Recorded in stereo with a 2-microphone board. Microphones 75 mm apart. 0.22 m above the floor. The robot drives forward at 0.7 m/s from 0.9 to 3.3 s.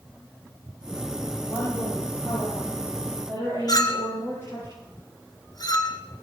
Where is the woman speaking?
35° left (ahead or behind), 9 m; by 4.7 s 30° left (ahead or behind), 10.5 m.